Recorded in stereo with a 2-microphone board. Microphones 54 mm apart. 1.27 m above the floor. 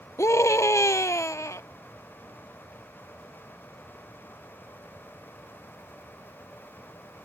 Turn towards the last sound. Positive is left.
turn(degrees=60)  # may be behind; listen again after turning